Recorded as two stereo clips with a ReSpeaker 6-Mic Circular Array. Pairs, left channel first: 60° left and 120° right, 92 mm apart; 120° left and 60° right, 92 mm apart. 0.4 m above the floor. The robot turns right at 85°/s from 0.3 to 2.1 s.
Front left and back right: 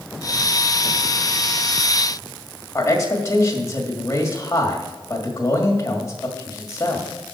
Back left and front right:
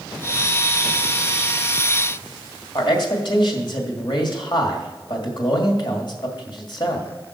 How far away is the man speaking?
About 2 m.